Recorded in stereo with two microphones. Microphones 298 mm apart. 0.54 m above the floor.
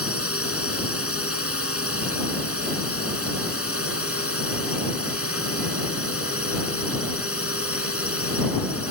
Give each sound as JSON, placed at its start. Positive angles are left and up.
{"t": 0.0, "sound": "a drone", "side_deg": 50}